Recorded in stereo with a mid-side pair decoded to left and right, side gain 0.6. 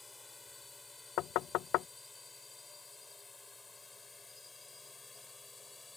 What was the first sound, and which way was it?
A drone, 15° left.